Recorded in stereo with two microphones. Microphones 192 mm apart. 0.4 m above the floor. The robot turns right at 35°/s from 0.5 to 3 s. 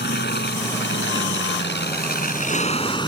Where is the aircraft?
70° left; by 3.1 s 155° left.